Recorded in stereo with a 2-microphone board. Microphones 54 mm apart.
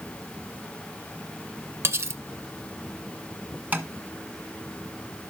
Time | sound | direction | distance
1.8 | cutlery clinking | 50° right (ahead or behind) | 1.1 m
3.7 | tapping | 30° right (ahead or behind) | 1.5 m